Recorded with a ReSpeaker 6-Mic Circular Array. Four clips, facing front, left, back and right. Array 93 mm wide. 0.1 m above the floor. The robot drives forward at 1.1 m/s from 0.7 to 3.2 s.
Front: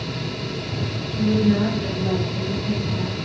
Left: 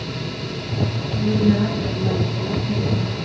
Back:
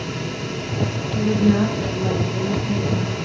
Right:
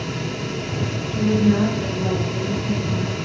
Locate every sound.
1.1 s a woman speaking: 150° right, 3 m; by 3.2 s 160° right, 5 m